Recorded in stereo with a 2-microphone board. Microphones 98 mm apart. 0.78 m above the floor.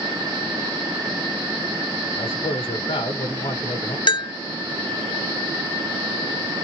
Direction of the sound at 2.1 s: 65° left (ahead or behind).